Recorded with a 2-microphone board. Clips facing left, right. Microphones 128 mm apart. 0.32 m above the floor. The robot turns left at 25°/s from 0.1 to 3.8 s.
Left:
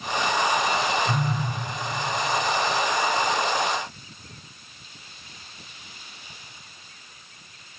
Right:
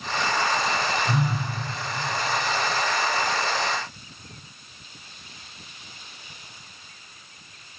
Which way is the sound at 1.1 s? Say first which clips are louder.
Even; 5° right (ahead or behind).